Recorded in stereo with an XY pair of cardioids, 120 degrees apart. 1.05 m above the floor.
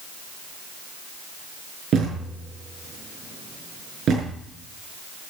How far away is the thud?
About 6.5 m.